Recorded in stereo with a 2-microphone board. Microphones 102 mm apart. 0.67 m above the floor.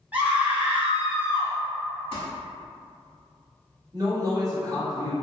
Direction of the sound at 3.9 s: 35° right (ahead or behind).